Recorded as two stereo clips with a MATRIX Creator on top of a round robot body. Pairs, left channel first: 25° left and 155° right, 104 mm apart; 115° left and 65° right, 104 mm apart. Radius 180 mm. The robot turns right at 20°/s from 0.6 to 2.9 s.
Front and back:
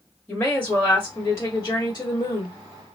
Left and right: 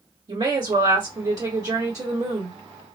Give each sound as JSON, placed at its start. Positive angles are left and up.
{"t": 0.3, "sound": "a woman speaking", "azimuth_deg": -45, "distance_m": 1.8}